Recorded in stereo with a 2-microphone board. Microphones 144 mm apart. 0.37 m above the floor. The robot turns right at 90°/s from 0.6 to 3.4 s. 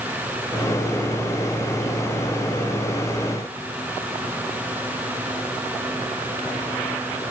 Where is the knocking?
I don't hear knocking.